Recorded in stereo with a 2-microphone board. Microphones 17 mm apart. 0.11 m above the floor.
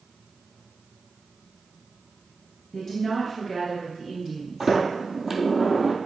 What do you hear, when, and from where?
2.7 s a woman speaking: 5° left (ahead or behind), 1.6 m; by 4.8 s 30° right (ahead or behind), 1.4 m
4.6 s a sliding door: 30° right (ahead or behind), 1.1 m